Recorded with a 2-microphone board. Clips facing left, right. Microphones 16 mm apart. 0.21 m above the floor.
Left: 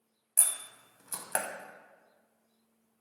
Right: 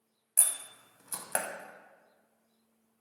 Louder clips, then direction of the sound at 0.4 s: Even; centre (ahead or behind).